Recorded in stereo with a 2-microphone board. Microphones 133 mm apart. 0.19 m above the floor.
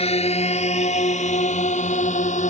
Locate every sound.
0.0 s a drone: 50° left (ahead or behind); by 2.5 s 65° left (ahead or behind)